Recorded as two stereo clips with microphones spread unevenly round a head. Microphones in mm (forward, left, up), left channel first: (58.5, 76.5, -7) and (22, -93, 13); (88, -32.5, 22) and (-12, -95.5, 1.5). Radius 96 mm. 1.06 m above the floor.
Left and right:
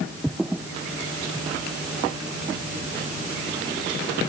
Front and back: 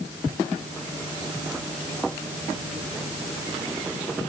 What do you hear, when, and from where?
Only background noise.